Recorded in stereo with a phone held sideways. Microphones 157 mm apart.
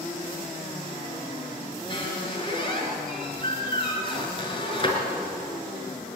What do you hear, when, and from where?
1.9 s a squeak: 30° left (ahead or behind), 4.5 m